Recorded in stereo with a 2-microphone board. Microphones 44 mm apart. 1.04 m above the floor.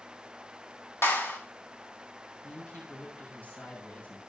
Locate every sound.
1.0 s a clap: 85° left, 5.5 m
2.4 s a woman speaking: 50° left (ahead or behind), 5.5 m